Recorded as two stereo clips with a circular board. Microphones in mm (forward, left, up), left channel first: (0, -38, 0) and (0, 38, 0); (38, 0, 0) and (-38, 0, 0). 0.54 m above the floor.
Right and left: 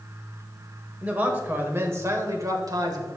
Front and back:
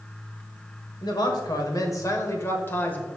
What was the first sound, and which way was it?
A man speaking, 20° left.